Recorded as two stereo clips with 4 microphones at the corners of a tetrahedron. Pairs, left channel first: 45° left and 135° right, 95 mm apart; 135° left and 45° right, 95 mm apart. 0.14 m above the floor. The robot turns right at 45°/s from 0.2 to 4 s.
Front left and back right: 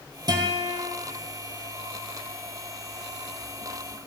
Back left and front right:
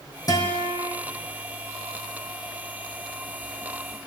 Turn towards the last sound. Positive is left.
turn(degrees=-5)